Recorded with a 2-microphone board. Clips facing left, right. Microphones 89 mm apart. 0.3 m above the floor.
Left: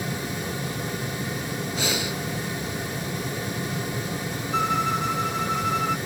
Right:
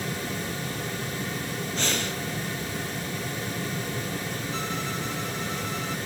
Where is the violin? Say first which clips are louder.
Left 12 dB; 60° left (ahead or behind).